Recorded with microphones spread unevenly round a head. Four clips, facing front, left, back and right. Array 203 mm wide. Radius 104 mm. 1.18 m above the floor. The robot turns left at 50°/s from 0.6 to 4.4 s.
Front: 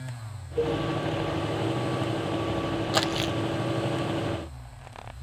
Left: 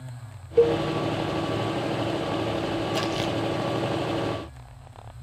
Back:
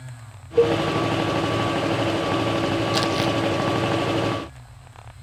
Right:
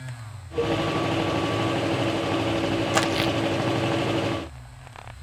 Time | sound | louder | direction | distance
0.6 | a cowbell | left 6 dB, back 9 dB | 145° left | 0.6 m
2.9 | crumpling | right 3 dB, back 5 dB | 70° right | 0.7 m